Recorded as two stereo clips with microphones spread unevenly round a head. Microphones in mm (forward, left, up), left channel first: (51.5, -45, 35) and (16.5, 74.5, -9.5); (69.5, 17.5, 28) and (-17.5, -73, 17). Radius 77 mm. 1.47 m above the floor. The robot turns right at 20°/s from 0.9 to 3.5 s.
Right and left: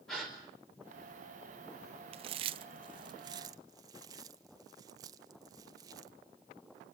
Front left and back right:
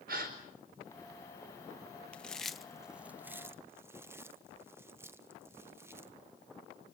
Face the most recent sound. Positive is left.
turn(degrees=155)